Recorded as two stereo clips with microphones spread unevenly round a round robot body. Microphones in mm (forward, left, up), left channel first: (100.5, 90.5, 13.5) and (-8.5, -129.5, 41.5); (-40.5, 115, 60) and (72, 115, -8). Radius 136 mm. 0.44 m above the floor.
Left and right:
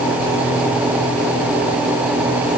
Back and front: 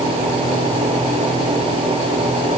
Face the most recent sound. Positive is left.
No sound to turn to.